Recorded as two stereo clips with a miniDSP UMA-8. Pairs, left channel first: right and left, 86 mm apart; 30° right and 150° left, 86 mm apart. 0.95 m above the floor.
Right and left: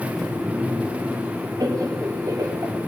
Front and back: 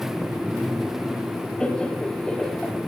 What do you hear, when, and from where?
1.6 s laughter: 50° left, 2.5 m